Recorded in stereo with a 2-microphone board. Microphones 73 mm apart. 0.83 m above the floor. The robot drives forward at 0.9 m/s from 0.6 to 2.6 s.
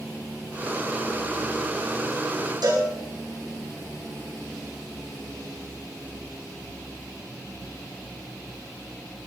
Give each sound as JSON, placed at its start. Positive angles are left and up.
{"t": 2.6, "sound": "a cowbell", "side_deg": -70, "distance_m": 9.5}